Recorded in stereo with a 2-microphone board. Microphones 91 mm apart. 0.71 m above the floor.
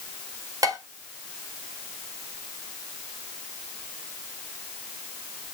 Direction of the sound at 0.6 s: 40° right (ahead or behind).